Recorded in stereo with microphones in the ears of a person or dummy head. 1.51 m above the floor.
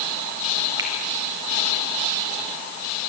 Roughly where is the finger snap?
Centre.